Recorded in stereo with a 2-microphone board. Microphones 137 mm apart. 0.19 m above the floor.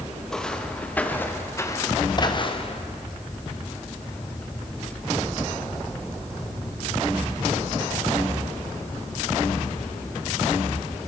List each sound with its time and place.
0.3 s footsteps: 5° left (ahead or behind), 4 m; by 2.8 s 45° left (ahead or behind), 2 m